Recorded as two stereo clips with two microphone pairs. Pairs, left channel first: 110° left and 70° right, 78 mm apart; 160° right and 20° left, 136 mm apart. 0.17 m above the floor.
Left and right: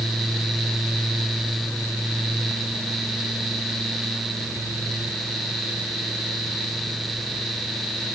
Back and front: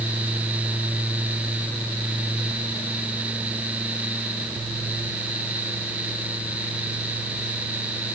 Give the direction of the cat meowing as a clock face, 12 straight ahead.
I don't hear a cat meowing.